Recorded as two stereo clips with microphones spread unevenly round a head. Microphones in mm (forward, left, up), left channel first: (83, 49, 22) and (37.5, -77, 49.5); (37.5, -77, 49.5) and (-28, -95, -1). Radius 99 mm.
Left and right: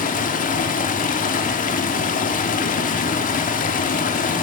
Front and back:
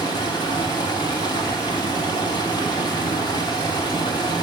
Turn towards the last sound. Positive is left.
turn(degrees=45)